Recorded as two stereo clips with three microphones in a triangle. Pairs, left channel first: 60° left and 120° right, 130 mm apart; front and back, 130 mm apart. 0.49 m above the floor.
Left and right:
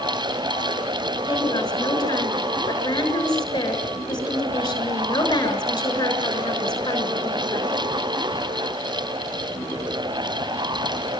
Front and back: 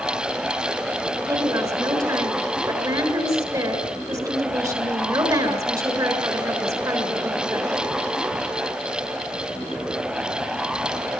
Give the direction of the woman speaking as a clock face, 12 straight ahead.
8 o'clock.